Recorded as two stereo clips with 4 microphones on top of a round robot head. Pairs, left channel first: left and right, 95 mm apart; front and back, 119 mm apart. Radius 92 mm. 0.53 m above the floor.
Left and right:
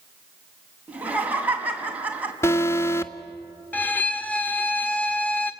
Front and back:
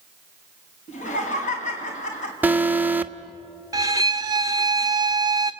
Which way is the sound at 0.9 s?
15° right.